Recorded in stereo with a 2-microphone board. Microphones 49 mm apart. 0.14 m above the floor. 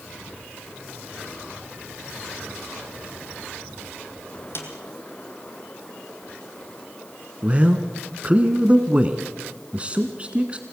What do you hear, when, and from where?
4.5 s a snare drum: 55° left (ahead or behind), 3 m
7.4 s a man speaking: 25° right (ahead or behind), 1.3 m